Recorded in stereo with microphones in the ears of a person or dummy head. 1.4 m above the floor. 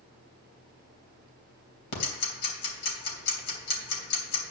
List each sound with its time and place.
1.9 s ticking: 60° left (ahead or behind), 3 m